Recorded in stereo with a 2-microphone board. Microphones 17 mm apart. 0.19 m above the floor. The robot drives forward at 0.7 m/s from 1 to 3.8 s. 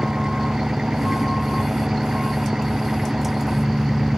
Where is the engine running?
65° right (ahead or behind); by 4.2 s 60° right (ahead or behind).